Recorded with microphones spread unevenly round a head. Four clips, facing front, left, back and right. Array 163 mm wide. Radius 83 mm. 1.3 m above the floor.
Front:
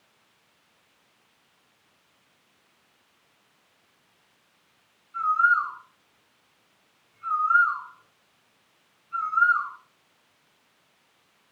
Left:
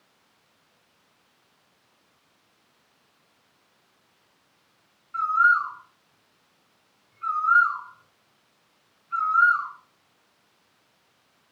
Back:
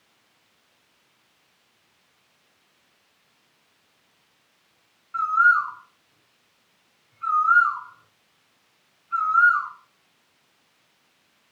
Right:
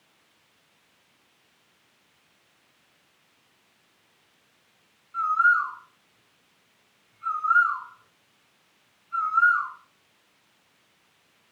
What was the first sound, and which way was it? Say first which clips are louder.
A bird: left 1 dB, back 3 dB; 165° left.